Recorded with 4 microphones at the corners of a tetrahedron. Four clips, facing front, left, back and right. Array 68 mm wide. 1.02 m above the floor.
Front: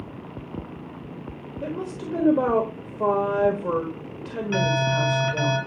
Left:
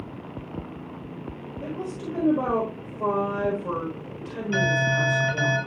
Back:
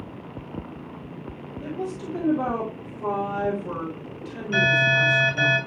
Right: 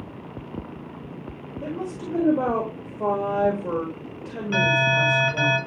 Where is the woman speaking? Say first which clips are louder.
Right 2 dB, even; 25° right, 1.6 m.